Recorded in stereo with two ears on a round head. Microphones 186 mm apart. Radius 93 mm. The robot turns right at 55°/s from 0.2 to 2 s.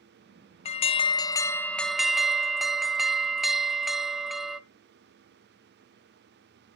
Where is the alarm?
110° left, 0.5 m; by 4.6 s 175° right, 0.5 m.